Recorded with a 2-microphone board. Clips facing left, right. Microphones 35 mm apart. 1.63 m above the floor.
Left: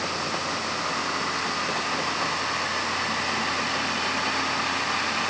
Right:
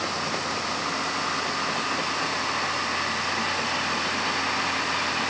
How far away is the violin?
No violin in this recording.